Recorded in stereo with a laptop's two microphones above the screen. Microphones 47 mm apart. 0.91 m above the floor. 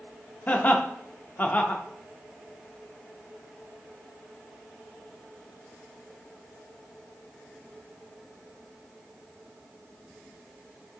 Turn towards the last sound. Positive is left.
turn(degrees=35)  # may be behind; listen again after turning